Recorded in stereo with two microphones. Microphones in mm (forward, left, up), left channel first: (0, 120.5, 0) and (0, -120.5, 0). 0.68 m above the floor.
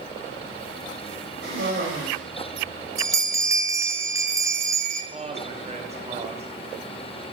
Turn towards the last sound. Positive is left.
turn(degrees=-25)  # may be behind; listen again after turning